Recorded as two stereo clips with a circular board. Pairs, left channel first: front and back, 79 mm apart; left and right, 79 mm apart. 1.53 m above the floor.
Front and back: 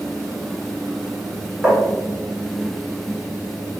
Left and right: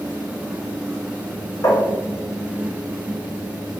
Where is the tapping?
110° left, 1.4 m.